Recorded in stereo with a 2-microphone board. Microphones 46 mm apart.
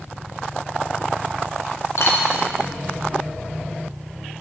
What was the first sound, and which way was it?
A dropped coin, 80° left.